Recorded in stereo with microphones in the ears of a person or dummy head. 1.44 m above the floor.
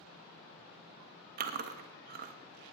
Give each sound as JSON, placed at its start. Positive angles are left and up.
{"t": 1.4, "sound": "chewing", "side_deg": -55, "distance_m": 0.9}